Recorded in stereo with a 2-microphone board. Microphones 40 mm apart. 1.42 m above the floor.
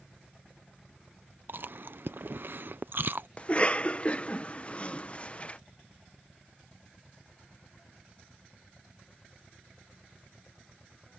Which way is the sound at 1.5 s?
60° right (ahead or behind).